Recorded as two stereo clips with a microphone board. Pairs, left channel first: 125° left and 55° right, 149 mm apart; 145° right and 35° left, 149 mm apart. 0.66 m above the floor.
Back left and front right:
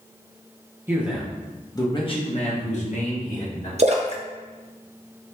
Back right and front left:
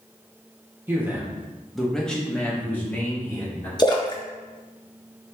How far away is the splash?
About 0.6 m.